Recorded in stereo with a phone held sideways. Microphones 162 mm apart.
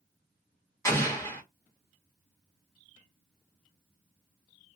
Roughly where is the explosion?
Centre.